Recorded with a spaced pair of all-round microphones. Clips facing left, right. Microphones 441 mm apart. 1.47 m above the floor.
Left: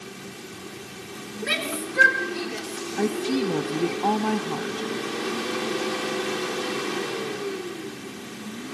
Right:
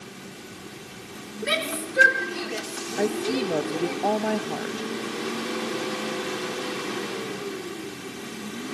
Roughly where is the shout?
Centre.